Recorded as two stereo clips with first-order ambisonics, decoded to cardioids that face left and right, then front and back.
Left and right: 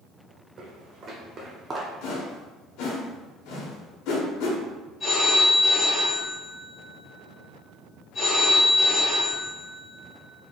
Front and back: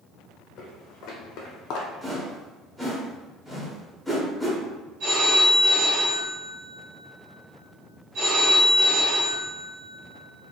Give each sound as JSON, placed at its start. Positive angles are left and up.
{"t": 0.6, "sound": "footsteps", "azimuth_deg": -35, "distance_m": 1.6}
{"t": 2.0, "sound": "a whoosh", "azimuth_deg": 95, "distance_m": 1.0}
{"t": 5.0, "sound": "a phone ringing", "azimuth_deg": 160, "distance_m": 2.0}